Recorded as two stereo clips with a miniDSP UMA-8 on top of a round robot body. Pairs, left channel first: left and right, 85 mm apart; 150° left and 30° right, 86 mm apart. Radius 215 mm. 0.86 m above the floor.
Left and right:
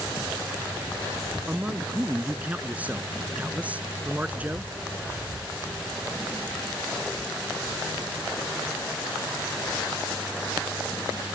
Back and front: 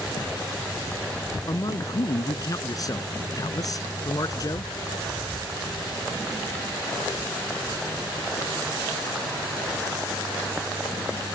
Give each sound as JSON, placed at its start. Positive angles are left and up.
{"t": 1.5, "sound": "a man speaking", "azimuth_deg": -165}